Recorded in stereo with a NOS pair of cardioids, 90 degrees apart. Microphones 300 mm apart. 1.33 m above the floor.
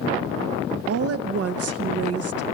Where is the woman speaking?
50° right, 1.2 m.